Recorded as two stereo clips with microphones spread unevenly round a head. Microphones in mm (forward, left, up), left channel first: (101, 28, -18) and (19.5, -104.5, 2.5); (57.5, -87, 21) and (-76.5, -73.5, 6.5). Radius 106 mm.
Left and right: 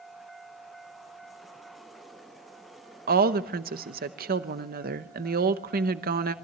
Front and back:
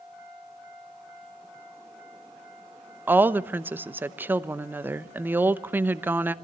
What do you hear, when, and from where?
3.1 s a woman speaking: 120° right, 0.9 m